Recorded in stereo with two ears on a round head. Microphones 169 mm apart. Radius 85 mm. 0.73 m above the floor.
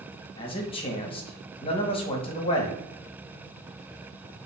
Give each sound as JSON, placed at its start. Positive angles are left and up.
{"t": 0.4, "sound": "a man speaking", "side_deg": 30, "distance_m": 0.9}